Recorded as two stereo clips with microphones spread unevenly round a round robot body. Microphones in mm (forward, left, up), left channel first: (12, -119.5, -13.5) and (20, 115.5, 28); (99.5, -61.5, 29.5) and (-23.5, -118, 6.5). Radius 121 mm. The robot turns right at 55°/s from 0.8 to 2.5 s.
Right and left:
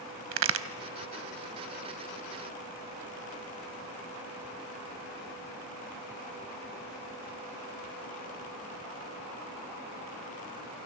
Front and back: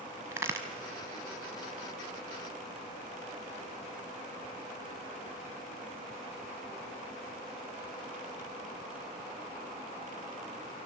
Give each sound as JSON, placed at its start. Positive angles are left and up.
{"t": 0.3, "sound": "a crack", "azimuth_deg": 130, "distance_m": 0.9}